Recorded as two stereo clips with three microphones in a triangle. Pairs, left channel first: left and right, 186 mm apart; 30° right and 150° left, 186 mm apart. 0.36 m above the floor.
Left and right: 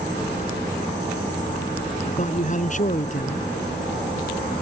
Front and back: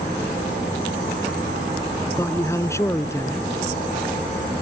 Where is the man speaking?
45° left.